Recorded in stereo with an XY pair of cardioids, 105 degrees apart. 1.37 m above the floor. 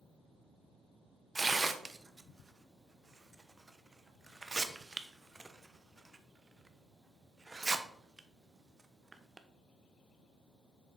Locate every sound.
1.4 s tearing paper: 20° right, 0.8 m